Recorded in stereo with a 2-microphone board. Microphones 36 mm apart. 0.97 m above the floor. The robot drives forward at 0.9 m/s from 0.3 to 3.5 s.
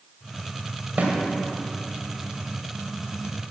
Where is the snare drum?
50° right (ahead or behind), 1.9 m.